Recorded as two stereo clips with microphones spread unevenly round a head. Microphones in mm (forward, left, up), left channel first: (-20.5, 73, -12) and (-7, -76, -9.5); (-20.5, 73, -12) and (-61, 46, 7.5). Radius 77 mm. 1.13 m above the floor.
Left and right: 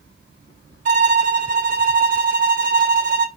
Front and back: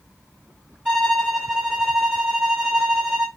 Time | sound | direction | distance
0.8 | a violin | 85° right | 1.1 m